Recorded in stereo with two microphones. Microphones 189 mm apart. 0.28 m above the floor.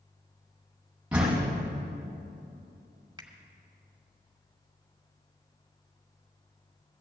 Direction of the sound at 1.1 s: 5° right (ahead or behind).